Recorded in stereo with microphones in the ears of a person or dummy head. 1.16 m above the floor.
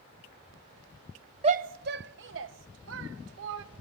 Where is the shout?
30° right (ahead or behind), 0.9 m; by 3.6 s 65° right (ahead or behind), 2.0 m.